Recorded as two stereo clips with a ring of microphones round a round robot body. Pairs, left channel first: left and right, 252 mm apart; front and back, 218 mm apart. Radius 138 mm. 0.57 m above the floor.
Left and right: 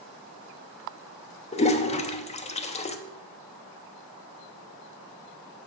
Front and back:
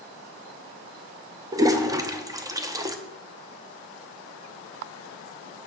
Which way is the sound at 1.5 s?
120° left.